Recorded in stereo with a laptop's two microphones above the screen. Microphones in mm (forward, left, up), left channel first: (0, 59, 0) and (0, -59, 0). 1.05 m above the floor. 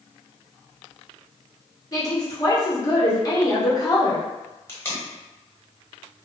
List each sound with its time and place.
1.9 s a woman speaking: 30° left (ahead or behind), 1.2 m
4.7 s tape being pulled: 20° left (ahead or behind), 0.9 m